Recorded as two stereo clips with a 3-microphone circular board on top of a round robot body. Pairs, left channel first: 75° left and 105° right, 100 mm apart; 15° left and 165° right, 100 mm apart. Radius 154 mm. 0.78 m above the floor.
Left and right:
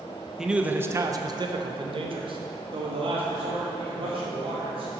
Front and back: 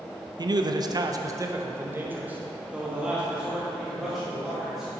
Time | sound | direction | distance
0.4 | a man speaking | 170° left | 0.8 m